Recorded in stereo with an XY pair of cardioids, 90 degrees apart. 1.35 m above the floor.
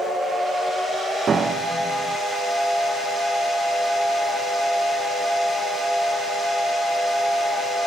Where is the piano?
45° right, 1.0 m.